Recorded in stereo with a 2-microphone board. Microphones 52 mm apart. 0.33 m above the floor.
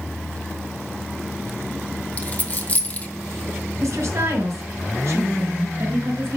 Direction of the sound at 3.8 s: 60° right (ahead or behind).